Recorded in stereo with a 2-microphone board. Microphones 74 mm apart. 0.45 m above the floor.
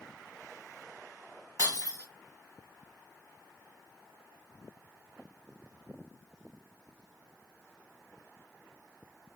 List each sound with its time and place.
1.6 s breaking glass: 55° right (ahead or behind), 1.3 m